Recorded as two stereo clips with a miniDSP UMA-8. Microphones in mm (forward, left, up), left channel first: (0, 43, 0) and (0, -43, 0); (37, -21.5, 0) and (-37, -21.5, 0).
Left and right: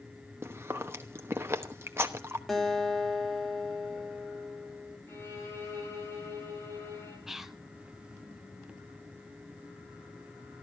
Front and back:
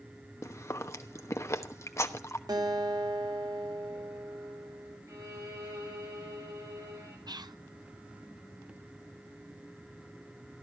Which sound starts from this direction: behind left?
A violin, at 5.1 s.